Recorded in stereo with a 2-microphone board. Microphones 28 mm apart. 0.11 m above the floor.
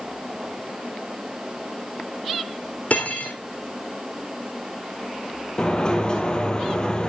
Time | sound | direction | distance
2.9 | cutlery clinking | 75° left (ahead or behind) | 3 m
5.6 | a sliding door | 30° left (ahead or behind) | 3 m